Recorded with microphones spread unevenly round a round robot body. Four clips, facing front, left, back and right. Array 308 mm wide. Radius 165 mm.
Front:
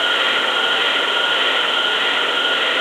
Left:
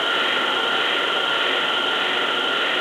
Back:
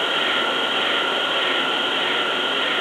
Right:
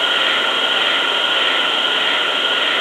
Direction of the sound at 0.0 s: 130° right.